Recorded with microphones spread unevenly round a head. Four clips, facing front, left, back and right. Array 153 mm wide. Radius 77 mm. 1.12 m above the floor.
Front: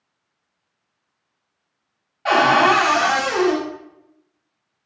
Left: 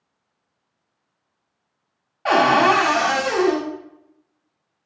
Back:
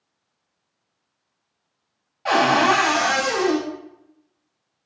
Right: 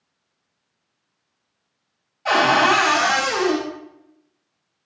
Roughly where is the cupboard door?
Left.